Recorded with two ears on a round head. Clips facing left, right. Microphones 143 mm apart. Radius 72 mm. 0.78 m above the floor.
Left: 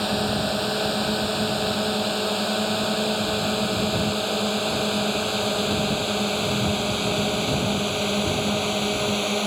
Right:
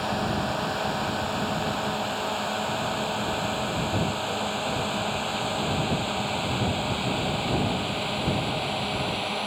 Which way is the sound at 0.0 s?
45° left (ahead or behind).